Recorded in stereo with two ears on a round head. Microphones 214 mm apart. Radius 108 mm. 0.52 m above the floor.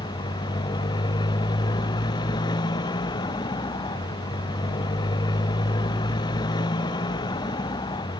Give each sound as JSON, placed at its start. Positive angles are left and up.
{"t": 0.0, "sound": "a motorcycle", "side_deg": 20}